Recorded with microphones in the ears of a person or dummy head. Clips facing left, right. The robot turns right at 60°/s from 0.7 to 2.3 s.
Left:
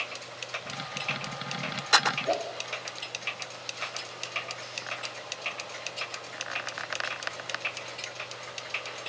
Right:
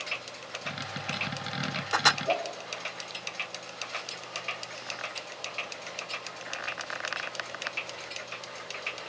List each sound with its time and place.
2.3 s a whoosh: 15° left (ahead or behind), 2.5 m